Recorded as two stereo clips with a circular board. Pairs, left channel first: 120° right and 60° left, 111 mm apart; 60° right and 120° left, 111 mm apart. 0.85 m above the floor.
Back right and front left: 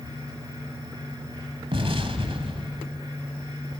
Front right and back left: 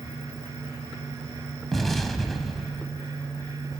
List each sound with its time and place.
1.7 s an explosion: 30° left, 1.6 m